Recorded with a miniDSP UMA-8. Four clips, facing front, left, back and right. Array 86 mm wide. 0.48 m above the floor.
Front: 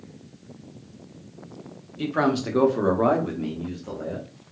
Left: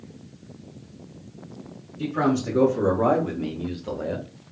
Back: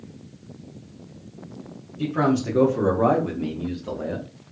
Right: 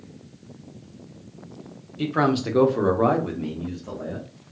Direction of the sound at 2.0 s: 65° right.